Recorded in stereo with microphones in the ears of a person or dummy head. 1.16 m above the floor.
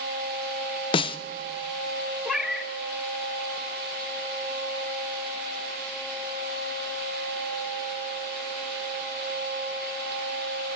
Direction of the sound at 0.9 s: 25° left (ahead or behind).